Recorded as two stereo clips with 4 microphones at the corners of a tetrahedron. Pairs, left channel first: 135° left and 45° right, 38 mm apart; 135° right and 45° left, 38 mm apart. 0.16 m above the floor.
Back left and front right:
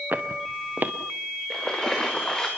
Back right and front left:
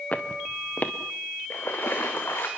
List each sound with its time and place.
0.1 s footsteps: 85° right, 1.8 m
1.5 s a splash: 150° right, 3.5 m